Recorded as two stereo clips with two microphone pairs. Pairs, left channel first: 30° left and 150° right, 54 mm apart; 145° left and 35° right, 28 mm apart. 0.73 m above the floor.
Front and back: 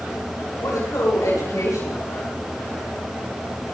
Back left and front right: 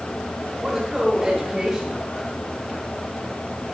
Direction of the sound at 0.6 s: 35° left.